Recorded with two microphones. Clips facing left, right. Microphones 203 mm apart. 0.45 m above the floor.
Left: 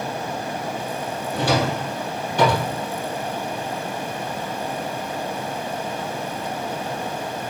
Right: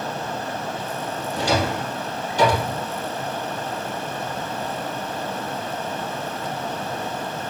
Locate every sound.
1.3 s a drawer: 65° left (ahead or behind), 4.5 m